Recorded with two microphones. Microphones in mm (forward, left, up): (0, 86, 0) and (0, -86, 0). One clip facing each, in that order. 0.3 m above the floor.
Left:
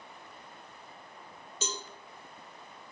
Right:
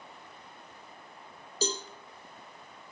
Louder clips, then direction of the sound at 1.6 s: Right 7 dB; 35° right (ahead or behind).